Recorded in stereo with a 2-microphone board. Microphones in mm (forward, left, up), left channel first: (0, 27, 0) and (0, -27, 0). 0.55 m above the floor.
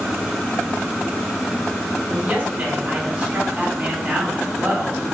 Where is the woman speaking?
20° right (ahead or behind), 1.2 m.